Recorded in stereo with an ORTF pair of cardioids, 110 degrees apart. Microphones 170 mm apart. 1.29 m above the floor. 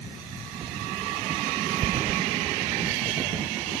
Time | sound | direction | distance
1.8 | running footsteps | 50° right | ?